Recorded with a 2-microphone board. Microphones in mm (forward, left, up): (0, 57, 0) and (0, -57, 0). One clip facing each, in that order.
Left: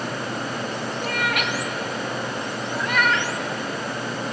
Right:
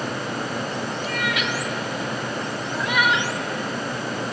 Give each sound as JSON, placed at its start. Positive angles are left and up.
{"t": 1.0, "sound": "a cat meowing", "side_deg": 60, "distance_m": 1.7}